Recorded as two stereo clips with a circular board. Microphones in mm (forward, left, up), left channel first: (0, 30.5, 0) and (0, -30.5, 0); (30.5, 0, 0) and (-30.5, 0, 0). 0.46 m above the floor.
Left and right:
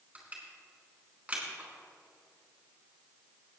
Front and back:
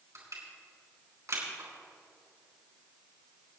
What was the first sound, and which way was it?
Crushing, 155° right.